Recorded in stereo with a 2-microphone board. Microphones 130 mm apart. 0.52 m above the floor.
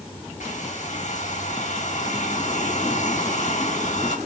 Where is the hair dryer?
70° left (ahead or behind), 2.5 m.